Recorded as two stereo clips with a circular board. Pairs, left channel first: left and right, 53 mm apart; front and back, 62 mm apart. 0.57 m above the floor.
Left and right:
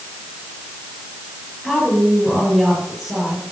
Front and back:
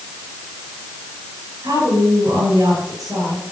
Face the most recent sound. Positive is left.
turn(degrees=175)